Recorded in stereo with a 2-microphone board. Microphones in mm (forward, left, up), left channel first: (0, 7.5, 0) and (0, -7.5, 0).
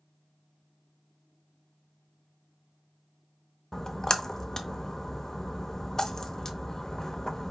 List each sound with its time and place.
3.7 s a splash: 40° left (ahead or behind), 0.7 m